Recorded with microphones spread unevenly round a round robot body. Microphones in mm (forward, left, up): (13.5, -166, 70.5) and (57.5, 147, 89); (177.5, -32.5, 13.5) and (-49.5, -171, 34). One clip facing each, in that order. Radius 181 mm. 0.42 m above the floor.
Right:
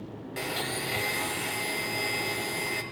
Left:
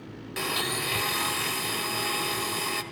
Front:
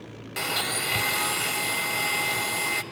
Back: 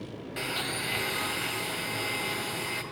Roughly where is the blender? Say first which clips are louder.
Left 2 dB, front 4 dB; ahead.